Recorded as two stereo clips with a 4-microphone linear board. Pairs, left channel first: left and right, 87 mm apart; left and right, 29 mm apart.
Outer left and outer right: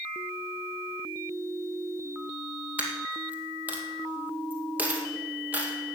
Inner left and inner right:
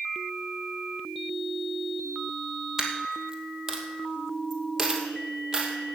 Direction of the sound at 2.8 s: 20° right (ahead or behind).